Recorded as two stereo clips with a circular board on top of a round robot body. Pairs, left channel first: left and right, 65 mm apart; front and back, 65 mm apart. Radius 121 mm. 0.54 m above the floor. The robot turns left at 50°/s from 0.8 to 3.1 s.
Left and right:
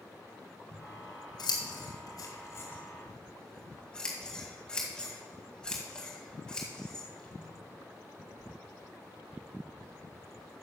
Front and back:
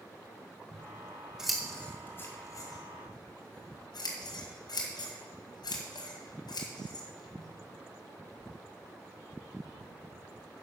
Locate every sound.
0.7 s scissors: 130° left, 1.9 m; by 7.5 s 15° left, 1.9 m